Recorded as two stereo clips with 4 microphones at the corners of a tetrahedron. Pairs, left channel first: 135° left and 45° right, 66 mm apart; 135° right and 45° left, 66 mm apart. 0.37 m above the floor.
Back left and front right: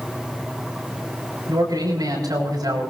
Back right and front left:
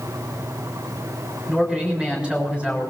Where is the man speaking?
30° right, 6.5 m.